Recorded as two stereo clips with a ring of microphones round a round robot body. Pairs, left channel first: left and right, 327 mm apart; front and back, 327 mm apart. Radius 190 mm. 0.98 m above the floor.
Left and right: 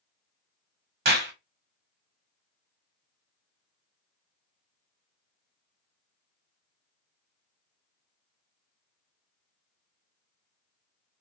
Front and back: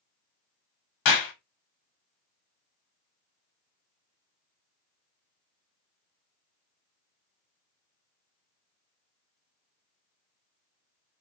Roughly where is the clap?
Ahead right.